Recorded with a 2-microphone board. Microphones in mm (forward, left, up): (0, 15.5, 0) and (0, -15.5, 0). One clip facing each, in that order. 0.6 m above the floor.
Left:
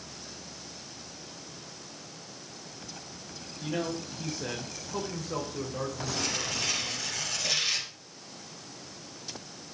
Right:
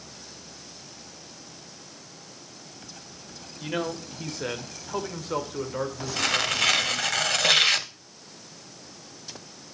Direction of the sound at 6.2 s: 75° right (ahead or behind).